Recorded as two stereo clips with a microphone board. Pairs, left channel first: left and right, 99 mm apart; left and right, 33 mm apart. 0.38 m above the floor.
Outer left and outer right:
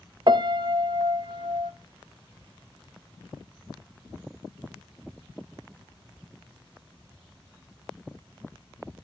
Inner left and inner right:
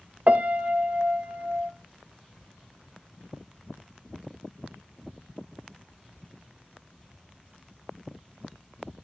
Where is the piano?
50° right (ahead or behind), 0.6 m.